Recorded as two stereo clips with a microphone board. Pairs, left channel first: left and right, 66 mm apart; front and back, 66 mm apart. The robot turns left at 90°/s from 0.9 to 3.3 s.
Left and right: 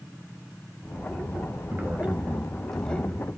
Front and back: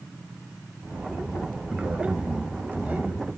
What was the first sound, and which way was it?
A man speaking, 100° right.